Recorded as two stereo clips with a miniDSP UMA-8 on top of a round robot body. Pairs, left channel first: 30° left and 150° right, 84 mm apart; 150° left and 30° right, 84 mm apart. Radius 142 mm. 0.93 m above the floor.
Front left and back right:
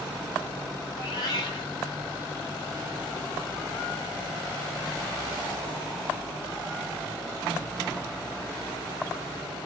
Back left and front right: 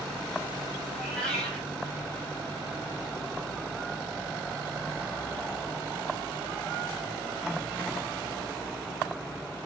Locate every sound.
0.9 s a cat meowing: 65° left, 1.4 m